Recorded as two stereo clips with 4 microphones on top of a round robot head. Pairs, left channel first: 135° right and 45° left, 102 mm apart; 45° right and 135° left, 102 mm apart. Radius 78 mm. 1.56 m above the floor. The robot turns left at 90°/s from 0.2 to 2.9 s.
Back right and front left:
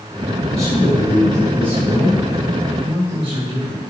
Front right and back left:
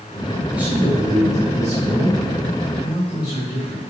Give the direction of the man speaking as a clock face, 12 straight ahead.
5 o'clock.